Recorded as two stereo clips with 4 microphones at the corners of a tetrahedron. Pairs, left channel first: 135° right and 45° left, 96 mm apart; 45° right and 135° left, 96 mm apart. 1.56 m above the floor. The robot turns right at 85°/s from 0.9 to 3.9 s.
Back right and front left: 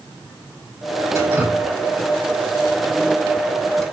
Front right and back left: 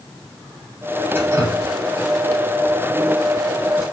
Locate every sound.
1.1 s dripping: 85° left, 1.4 m; by 3.8 s 45° right, 1.4 m